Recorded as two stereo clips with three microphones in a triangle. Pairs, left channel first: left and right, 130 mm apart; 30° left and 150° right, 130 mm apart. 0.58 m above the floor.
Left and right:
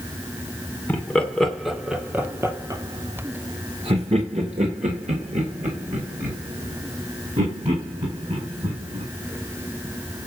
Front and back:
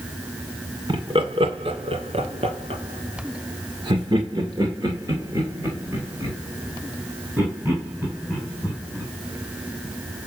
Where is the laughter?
165° left, 2.5 m; by 9.0 s 70° right, 5.5 m.